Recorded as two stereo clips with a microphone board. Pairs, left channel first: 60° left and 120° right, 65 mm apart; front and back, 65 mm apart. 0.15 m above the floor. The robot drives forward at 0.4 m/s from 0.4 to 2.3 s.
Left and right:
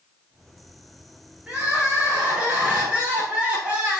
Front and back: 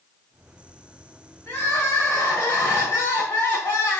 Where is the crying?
50° right, 4.5 m.